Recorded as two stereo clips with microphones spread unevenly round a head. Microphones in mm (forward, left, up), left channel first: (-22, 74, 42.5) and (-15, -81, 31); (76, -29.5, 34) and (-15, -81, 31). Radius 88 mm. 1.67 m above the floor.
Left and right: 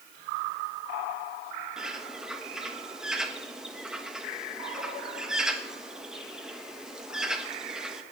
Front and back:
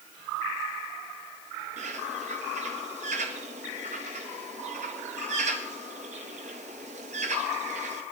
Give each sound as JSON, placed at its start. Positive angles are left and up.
{"t": 1.8, "sound": "a bird", "azimuth_deg": -175, "distance_m": 1.4}